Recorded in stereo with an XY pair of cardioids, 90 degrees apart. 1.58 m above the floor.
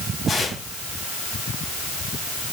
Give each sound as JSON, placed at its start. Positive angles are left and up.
{"t": 0.3, "sound": "tearing paper", "azimuth_deg": 50, "distance_m": 6.5}